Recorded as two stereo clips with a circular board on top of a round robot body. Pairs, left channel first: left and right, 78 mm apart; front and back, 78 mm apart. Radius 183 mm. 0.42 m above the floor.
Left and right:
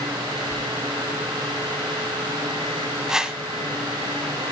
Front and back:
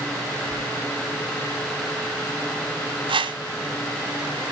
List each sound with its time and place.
0.5 s whispering: 75° right, 4.5 m
3.1 s a whoosh: 175° right, 0.8 m